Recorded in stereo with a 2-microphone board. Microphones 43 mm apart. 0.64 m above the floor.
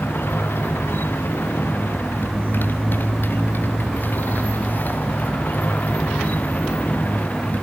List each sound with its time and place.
0.0 s a motorcycle: 55° left (ahead or behind); by 7.6 s 35° left (ahead or behind)